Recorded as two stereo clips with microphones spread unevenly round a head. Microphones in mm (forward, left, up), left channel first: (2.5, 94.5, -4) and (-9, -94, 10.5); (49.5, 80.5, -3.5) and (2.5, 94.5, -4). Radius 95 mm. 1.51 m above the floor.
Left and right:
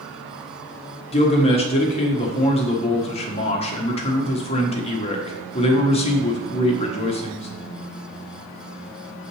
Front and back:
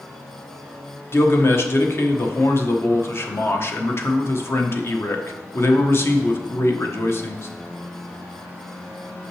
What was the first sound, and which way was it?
A man speaking, 25° left.